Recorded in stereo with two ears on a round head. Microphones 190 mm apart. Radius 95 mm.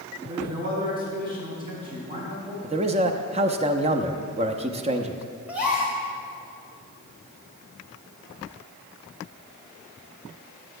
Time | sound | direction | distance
0.2 | a man speaking | 20° right (ahead or behind) | 4.5 m
2.6 | a man speaking | 30° right (ahead or behind) | 0.6 m
5.5 | a gasp | 5° right (ahead or behind) | 2.5 m